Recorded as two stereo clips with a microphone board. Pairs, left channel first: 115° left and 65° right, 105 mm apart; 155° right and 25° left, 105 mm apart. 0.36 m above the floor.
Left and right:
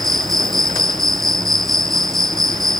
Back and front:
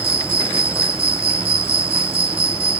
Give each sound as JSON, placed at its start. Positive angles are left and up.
{"t": 0.0, "sound": "an insect", "azimuth_deg": 25}